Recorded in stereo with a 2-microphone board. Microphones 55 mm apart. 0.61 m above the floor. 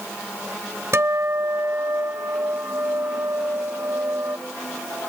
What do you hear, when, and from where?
0.9 s a guitar: 55° right (ahead or behind)